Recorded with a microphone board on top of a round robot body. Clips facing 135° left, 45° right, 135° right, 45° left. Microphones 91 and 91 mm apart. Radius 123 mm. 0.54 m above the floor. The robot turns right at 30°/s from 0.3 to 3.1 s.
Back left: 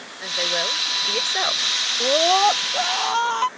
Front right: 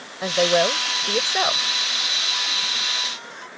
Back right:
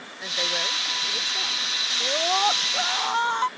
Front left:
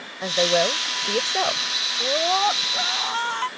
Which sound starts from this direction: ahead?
A woman speaking, at 0.2 s.